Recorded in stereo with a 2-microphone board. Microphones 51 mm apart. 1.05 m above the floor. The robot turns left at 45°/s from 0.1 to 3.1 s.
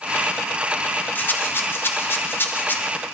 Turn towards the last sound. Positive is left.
turn(degrees=40)